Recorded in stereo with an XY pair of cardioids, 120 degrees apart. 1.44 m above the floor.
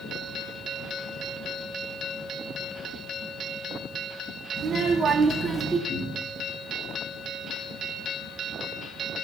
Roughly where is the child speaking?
Ahead right.